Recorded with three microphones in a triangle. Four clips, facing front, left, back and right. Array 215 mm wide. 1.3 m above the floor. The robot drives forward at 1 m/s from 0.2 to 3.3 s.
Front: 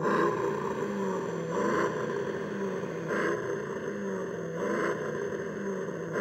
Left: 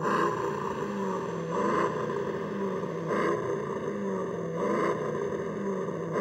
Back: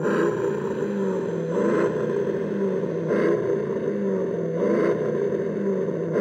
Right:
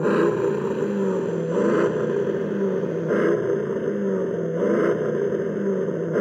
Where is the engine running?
120° right; by 6.2 s 130° right.